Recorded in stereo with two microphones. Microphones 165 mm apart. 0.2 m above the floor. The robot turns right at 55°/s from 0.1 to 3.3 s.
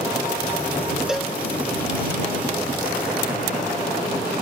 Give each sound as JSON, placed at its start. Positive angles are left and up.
{"t": 1.1, "sound": "a cowbell", "side_deg": -5}